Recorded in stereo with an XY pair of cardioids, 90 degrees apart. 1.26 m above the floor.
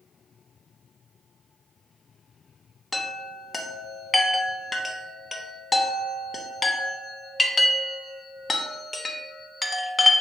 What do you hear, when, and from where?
2.9 s a chime: 30° left, 0.6 m